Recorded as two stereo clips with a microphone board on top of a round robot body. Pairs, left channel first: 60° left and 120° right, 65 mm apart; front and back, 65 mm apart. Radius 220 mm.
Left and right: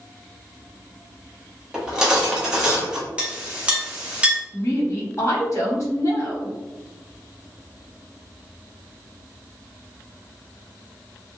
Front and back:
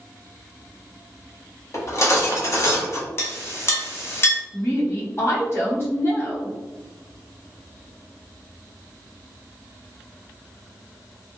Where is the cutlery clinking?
45° right, 1.0 m.